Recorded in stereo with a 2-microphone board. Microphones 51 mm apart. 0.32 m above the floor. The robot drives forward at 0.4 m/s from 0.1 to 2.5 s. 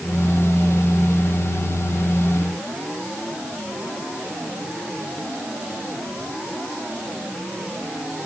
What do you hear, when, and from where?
Only background noise.